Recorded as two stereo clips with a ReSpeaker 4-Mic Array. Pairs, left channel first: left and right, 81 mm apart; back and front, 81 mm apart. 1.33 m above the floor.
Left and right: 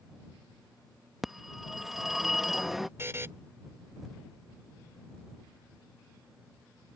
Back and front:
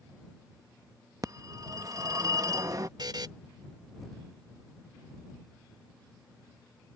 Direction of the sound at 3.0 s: 30° right.